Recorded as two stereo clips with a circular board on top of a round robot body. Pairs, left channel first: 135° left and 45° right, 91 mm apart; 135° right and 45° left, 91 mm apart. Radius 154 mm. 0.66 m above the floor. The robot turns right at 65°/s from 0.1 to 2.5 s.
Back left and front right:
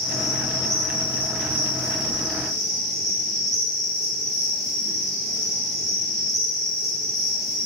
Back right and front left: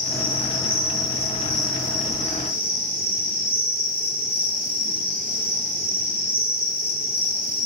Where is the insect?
145° right, 1.5 m; by 7.7 s 15° left, 1.5 m.